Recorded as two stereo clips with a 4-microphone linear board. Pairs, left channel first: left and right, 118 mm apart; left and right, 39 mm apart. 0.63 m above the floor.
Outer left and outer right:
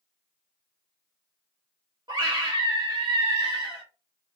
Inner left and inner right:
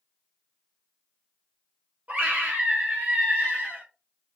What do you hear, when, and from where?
2.1 s a scream: 35° right (ahead or behind), 0.7 m